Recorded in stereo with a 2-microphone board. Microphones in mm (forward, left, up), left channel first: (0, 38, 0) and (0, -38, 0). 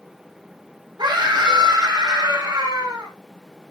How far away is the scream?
About 6 m.